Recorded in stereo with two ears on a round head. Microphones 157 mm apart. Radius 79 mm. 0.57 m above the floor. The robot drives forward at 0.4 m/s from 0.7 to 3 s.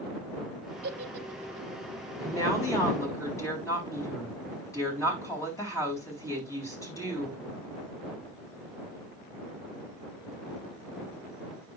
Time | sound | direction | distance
0.8 | a giggle | 60° right (ahead or behind) | 1.3 m
2.2 | a woman speaking | 20° left (ahead or behind) | 4.5 m